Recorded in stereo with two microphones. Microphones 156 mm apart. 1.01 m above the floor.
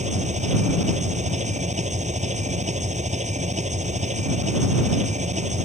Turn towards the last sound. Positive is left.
turn(degrees=-50)  # may be behind; listen again after turning